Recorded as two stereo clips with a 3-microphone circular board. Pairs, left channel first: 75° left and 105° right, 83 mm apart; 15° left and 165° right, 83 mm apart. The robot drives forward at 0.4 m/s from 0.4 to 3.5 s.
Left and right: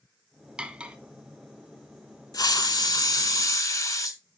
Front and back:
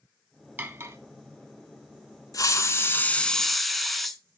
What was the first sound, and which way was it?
Cutlery clinking, 160° right.